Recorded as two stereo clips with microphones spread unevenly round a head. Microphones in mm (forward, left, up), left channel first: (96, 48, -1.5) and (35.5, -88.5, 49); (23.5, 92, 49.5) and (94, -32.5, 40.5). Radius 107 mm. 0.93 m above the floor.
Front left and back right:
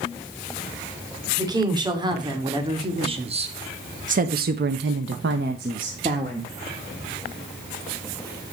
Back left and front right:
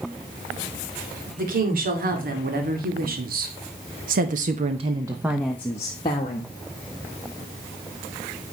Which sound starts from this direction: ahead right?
A woman speaking, at 1.4 s.